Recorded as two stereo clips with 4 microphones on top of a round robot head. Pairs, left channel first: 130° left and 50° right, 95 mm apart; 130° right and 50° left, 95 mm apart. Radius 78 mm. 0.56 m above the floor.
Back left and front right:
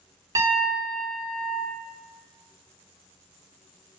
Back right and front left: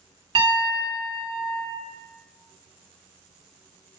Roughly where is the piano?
Ahead.